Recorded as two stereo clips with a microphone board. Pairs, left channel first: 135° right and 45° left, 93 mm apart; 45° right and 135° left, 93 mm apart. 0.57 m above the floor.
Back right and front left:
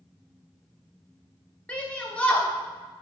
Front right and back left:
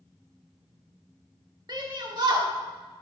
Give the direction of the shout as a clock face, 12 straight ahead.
7 o'clock.